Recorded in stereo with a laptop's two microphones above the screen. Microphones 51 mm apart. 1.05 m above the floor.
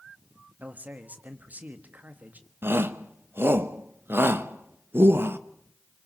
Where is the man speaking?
30° right (ahead or behind), 1.5 m.